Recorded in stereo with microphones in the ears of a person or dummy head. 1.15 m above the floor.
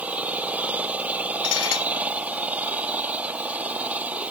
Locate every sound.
0.0 s an engine running: 10° right (ahead or behind)
1.4 s dishes clattering: 85° left